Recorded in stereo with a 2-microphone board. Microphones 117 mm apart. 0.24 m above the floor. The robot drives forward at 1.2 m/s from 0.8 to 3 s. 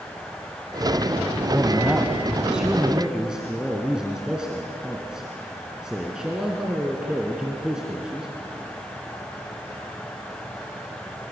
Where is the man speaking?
15° right (ahead or behind), 1.0 m; by 8.3 s 5° right (ahead or behind), 2.5 m.